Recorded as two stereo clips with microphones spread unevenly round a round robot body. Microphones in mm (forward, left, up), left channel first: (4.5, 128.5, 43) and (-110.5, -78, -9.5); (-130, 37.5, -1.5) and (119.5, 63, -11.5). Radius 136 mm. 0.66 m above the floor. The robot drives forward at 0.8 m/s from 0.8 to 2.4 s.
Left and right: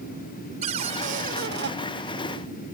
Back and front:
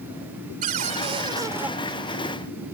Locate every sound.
0.6 s a cupboard door: 55° right; by 1.7 s 80° right